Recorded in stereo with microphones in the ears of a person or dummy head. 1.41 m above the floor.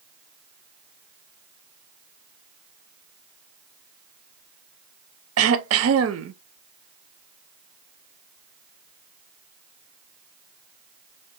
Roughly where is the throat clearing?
Right.